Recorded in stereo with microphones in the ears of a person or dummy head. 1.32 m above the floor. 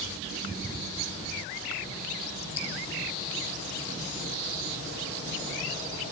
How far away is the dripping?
About 7.5 m.